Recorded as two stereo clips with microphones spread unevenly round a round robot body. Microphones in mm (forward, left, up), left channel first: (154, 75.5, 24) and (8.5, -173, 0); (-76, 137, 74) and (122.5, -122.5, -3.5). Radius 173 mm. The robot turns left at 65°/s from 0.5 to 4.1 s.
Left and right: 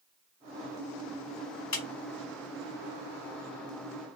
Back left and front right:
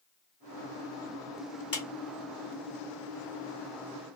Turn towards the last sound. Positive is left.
turn(degrees=-90)